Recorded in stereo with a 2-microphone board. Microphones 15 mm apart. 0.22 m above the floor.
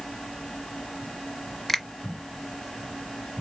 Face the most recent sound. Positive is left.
turn(degrees=15)  # may be behind; listen again after turning